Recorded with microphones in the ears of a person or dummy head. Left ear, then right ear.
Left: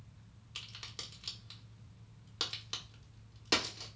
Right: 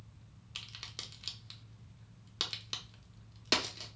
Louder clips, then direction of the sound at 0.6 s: Right 1 dB; 10° right (ahead or behind).